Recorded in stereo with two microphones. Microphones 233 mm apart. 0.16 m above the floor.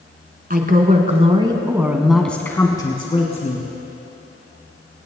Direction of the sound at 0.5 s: 40° right (ahead or behind).